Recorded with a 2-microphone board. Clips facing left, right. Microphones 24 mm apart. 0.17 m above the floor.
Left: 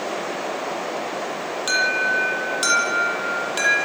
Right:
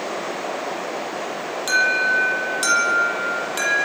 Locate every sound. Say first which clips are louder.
1.7 s an alarm: right 2 dB; 15° left (ahead or behind), 8.5 m